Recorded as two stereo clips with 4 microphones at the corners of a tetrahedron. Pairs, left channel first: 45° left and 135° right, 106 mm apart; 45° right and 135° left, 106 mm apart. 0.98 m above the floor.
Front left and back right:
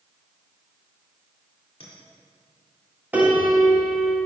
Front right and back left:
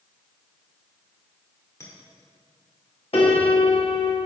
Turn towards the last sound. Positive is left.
turn(degrees=-60)